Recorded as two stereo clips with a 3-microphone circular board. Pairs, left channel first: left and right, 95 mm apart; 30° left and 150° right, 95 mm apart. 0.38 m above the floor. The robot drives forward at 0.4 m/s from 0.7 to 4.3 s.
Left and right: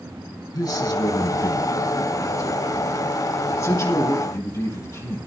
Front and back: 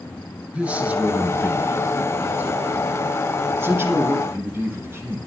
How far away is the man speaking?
About 3.5 m.